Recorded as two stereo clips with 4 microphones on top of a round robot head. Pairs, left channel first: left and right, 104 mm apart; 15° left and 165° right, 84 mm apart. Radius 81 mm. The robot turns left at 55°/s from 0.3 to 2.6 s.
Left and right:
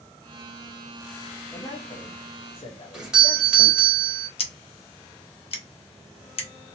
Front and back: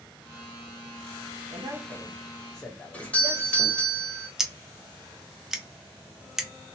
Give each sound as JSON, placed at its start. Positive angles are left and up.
{"t": 1.5, "sound": "a man speaking", "azimuth_deg": 155, "distance_m": 0.6}
{"t": 2.9, "sound": "a doorbell", "azimuth_deg": -20, "distance_m": 1.4}
{"t": 4.4, "sound": "scissors", "azimuth_deg": 110, "distance_m": 0.8}